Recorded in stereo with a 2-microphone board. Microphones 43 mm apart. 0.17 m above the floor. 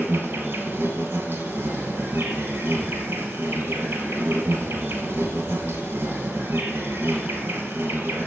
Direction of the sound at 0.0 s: 70° right (ahead or behind).